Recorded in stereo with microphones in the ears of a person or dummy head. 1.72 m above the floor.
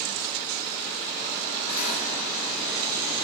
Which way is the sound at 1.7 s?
85° left.